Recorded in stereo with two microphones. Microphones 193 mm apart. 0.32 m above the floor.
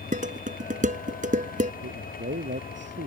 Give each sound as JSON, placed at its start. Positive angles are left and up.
{"t": 0.1, "sound": "dishes clattering", "side_deg": -45}
{"t": 1.8, "sound": "a man speaking", "side_deg": -70}